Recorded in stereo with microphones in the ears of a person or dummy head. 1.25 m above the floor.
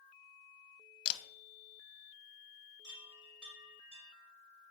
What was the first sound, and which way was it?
A camera shutter, 25° left (ahead or behind).